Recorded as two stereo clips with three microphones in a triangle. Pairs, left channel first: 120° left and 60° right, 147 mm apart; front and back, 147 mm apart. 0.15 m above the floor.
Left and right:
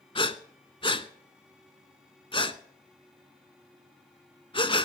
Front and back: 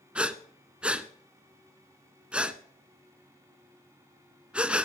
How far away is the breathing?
About 0.8 m.